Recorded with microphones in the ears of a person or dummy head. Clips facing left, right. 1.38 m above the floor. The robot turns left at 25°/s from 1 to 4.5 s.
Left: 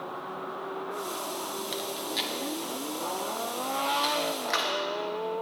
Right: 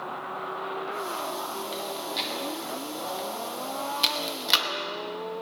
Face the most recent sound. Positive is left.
turn(degrees=-45)  # may be behind; listen again after turning